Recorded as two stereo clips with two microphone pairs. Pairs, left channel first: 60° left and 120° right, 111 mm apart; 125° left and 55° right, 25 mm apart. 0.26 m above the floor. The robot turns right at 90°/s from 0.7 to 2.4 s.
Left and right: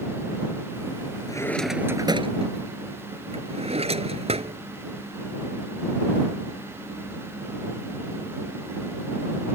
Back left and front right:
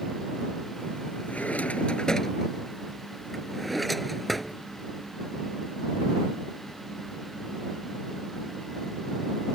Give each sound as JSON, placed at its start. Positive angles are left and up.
{"t": 1.3, "sound": "a drawer", "azimuth_deg": 115}